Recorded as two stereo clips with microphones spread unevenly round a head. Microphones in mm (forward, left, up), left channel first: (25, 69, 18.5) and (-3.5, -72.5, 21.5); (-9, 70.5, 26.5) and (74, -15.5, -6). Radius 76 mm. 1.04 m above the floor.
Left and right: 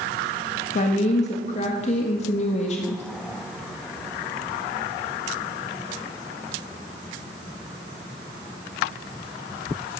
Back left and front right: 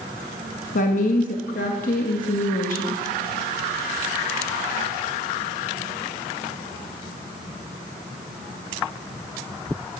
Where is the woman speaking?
120° left, 1.6 m.